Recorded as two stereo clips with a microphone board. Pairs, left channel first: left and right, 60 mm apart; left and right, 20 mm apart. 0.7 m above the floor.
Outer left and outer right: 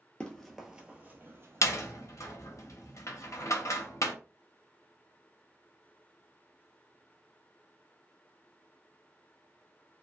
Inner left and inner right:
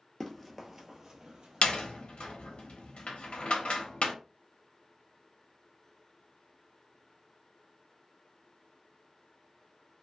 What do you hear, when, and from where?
0.2 s running footsteps: 15° left (ahead or behind), 0.7 m; by 2.0 s 55° right (ahead or behind), 1.1 m
1.6 s a door slam: 60° left (ahead or behind), 0.7 m